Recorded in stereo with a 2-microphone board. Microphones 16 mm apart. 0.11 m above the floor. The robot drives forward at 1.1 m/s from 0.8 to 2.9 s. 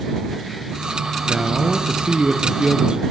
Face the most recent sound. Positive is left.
turn(degrees=-40)  # may be behind; listen again after turning